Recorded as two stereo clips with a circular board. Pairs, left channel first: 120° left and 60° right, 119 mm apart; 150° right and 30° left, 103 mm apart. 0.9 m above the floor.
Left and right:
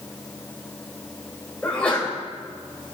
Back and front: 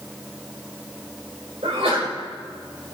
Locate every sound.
1.6 s a sneeze: 40° left, 3.5 m